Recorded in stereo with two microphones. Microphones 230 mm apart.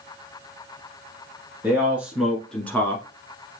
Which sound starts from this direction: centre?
A man speaking, at 1.6 s.